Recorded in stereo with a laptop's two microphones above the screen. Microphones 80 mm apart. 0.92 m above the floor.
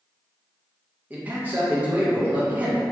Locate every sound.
1.1 s a man speaking: 20° right (ahead or behind), 0.5 m